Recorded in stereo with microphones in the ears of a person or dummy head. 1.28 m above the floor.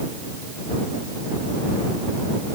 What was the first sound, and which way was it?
Only background noise.